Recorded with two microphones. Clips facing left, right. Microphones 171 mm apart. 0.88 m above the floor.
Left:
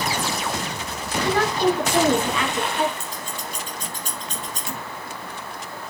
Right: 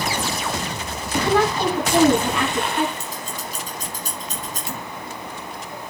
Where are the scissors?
40° right (ahead or behind), 4.5 m.